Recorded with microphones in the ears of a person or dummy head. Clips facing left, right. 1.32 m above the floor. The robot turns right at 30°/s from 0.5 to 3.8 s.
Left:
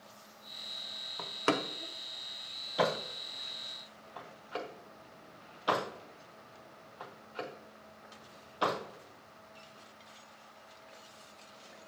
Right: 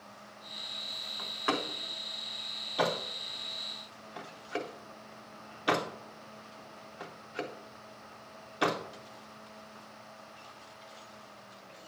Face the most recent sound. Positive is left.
turn(degrees=-20)  # may be behind; listen again after turning